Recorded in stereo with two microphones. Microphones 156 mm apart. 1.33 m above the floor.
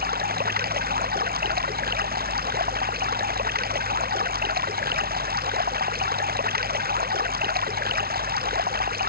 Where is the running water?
85° right.